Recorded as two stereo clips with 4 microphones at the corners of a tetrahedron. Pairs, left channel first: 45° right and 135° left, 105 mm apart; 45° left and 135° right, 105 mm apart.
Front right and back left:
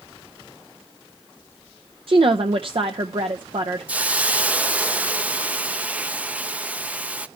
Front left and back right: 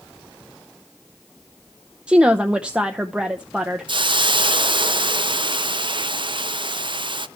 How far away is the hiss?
About 0.5 m.